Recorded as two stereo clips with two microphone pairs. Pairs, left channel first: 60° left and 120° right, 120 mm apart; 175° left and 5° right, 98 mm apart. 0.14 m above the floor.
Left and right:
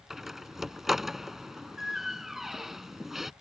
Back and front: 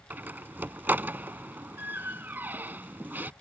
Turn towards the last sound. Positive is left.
turn(degrees=-35)